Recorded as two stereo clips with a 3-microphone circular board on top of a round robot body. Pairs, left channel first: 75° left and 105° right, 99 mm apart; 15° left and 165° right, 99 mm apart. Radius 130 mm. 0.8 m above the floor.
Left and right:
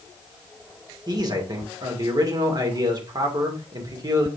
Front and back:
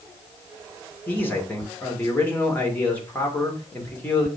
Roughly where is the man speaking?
Ahead right.